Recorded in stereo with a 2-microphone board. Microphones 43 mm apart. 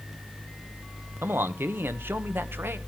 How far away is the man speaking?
About 1.1 m.